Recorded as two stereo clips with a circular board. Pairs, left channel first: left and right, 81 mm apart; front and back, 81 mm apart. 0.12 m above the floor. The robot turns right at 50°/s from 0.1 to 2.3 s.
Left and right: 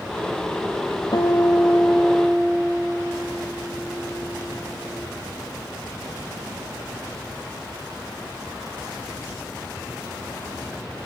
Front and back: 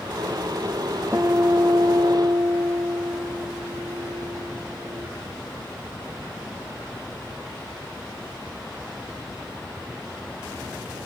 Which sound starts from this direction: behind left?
A guitar, at 1.1 s.